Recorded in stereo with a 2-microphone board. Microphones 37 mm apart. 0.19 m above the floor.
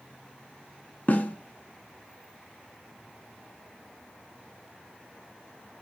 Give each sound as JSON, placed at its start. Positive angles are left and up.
{"t": 1.1, "sound": "a snare drum", "side_deg": 45, "distance_m": 0.7}